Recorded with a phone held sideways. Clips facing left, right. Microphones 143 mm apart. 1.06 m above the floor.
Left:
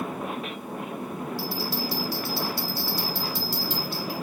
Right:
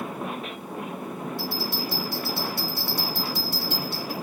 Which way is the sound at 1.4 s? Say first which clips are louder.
Left 1 dB; 55° right (ahead or behind).